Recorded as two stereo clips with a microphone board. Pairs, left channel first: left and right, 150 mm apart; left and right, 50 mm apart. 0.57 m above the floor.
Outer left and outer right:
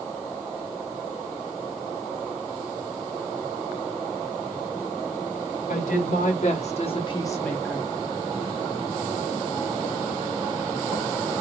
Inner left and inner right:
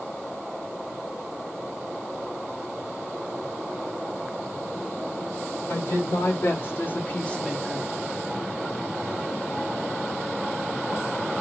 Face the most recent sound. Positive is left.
turn(degrees=-15)  # may be behind; listen again after turning